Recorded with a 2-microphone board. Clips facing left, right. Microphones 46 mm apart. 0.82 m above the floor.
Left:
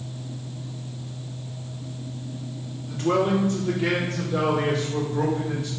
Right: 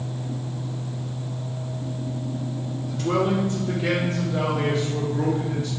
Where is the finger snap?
No finger snap in this recording.